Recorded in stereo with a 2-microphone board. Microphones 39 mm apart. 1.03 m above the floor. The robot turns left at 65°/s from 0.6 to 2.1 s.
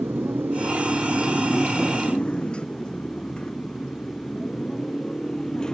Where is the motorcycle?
65° right (ahead or behind); by 5.8 s 15° left (ahead or behind).